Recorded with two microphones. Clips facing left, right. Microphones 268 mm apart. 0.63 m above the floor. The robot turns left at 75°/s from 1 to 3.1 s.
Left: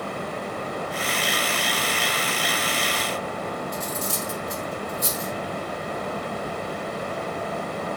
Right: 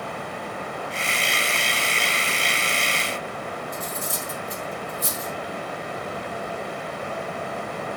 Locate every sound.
3.7 s cutlery clinking: 80° left, 1.9 m